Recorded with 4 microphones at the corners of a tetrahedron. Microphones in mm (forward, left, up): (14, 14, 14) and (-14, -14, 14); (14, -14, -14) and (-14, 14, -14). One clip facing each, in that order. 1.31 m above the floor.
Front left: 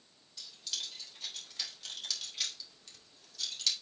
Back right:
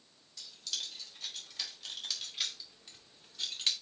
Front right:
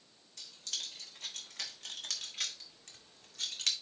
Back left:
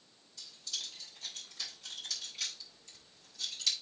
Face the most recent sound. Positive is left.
turn(degrees=-75)